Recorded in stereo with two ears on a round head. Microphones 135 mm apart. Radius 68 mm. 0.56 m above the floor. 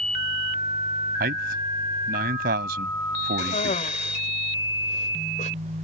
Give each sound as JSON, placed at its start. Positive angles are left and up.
{"t": 1.2, "sound": "a man speaking", "side_deg": -65}
{"t": 3.4, "sound": "a cough", "side_deg": 50}